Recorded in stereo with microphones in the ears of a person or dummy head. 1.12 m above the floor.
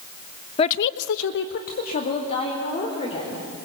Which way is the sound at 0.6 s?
25° left (ahead or behind).